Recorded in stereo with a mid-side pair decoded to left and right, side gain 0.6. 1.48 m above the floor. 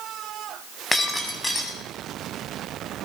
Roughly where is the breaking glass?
Ahead.